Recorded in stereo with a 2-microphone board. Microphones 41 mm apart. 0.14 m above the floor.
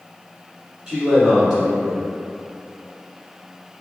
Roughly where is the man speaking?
Centre.